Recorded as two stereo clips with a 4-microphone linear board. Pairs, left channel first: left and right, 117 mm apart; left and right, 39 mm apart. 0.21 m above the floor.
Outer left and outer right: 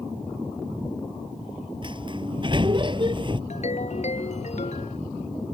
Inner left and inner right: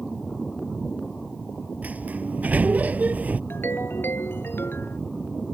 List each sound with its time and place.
1.8 s a sliding door: 40° right (ahead or behind)
3.5 s a ringtone: 70° left (ahead or behind)